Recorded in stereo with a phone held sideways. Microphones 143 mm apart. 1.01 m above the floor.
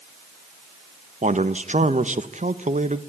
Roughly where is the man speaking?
Right.